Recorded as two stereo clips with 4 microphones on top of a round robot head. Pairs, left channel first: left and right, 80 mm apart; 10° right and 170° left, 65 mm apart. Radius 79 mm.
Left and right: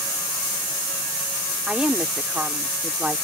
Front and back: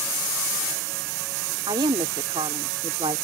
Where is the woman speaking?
165° right.